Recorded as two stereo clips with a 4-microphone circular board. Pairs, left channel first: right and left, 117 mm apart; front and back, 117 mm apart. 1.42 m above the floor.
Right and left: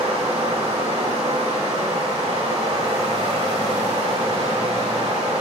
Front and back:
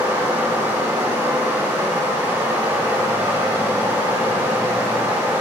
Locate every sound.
0.0 s running water: 115° left, 3.5 m